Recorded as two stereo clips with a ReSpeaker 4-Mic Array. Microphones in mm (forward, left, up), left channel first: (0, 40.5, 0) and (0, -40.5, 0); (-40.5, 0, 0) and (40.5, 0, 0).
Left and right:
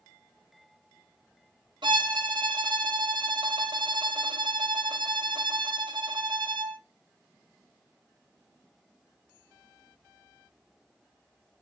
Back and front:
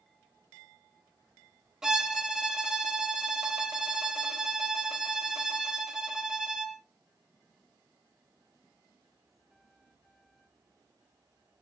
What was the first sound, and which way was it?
A violin, 80° right.